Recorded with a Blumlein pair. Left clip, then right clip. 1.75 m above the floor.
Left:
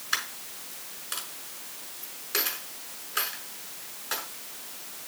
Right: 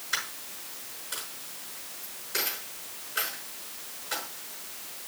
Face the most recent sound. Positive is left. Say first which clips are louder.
# left 2 dB
turn(degrees=65)